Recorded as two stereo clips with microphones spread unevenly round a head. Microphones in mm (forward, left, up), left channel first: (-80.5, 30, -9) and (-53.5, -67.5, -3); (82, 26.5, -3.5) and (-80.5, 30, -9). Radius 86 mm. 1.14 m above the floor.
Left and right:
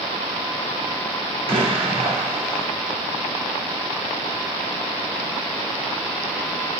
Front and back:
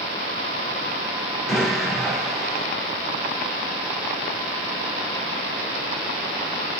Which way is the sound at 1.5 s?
95° right.